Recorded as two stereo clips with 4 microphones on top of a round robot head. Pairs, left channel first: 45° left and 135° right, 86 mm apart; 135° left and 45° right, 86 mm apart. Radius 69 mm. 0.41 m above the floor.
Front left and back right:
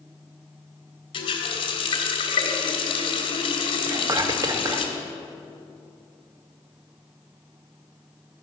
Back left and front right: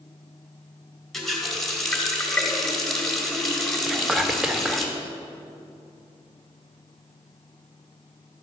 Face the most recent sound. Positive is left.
turn(degrees=-125)